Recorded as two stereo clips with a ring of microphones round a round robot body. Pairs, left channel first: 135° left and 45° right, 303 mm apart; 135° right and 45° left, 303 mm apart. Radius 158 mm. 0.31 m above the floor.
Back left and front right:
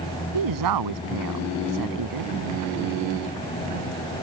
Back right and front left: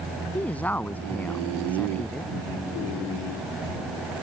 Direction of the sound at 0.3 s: 50° right.